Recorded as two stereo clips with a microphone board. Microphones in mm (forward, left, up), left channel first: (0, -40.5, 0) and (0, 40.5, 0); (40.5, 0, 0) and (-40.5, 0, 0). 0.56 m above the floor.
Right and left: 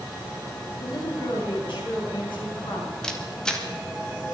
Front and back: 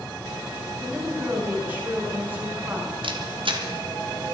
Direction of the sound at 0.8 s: 110° right.